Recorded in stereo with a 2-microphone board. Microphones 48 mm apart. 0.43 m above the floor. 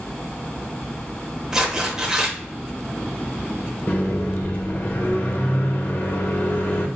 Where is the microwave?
40° left (ahead or behind), 1.0 m.